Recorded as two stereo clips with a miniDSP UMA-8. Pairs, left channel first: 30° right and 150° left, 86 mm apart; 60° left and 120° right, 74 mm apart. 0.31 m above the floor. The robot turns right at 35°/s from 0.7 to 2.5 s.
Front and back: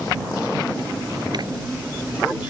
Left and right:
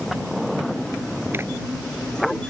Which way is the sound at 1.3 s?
Straight behind.